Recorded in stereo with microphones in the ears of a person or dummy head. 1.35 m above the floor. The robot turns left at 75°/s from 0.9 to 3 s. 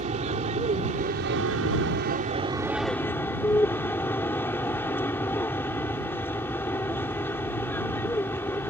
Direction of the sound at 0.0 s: 35° right.